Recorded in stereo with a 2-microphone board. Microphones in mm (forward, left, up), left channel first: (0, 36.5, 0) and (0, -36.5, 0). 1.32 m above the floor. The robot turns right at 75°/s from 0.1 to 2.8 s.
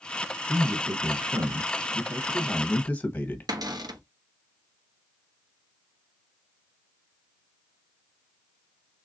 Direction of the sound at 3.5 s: 60° right (ahead or behind).